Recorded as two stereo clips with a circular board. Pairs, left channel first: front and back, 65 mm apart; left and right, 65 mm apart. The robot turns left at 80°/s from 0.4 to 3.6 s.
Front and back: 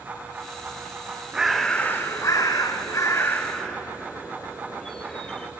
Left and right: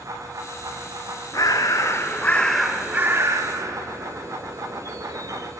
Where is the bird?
100° left, 0.8 m; by 5.5 s 80° right, 0.8 m.